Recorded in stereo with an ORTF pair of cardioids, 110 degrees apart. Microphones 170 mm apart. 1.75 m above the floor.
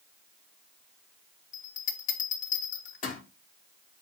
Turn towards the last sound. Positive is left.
turn(degrees=50)